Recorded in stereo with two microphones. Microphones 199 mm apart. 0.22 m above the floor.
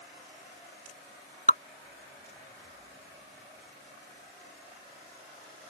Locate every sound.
1.5 s dripping: 40° left (ahead or behind)